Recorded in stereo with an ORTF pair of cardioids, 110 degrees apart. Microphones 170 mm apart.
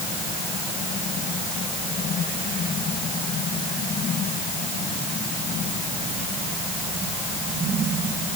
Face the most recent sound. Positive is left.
No sound to turn to.